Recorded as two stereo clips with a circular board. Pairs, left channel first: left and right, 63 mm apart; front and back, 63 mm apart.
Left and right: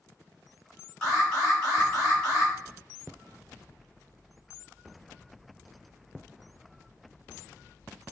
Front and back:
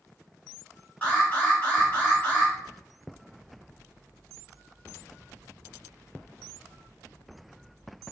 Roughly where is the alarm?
Ahead left.